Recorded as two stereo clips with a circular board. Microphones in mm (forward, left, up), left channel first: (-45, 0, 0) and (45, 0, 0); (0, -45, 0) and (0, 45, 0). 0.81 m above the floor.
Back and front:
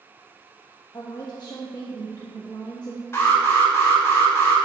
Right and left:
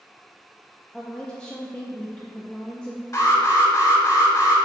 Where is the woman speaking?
165° right, 0.9 m.